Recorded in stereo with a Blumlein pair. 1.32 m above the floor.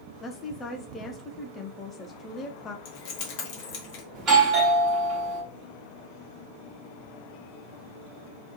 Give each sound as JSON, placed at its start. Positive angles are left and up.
{"t": 0.2, "sound": "a woman speaking", "azimuth_deg": 15, "distance_m": 0.6}
{"t": 2.9, "sound": "keys jangling", "azimuth_deg": 45, "distance_m": 1.2}
{"t": 4.2, "sound": "a doorbell", "azimuth_deg": -30, "distance_m": 1.6}